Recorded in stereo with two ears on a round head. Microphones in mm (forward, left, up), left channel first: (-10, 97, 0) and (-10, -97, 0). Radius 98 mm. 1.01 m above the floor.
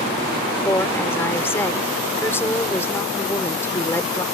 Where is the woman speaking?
10° left (ahead or behind).